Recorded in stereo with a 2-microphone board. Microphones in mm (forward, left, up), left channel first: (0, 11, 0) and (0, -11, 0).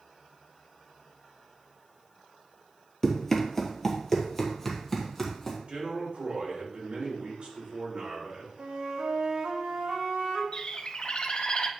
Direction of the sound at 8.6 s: 75° right (ahead or behind).